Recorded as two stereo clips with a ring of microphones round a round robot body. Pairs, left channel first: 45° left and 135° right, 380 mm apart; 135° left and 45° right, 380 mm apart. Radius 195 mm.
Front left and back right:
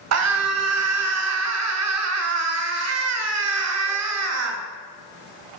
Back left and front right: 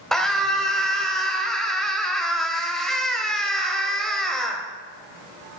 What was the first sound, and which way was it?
A scream, 135° right.